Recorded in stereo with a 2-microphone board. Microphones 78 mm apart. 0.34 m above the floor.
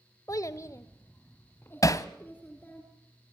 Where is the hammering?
45° left (ahead or behind), 0.8 m.